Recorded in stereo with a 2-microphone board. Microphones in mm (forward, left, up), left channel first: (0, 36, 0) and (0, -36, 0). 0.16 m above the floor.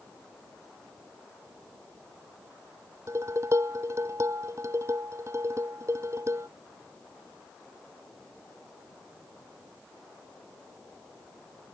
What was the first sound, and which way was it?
Dishes clattering, 40° right (ahead or behind).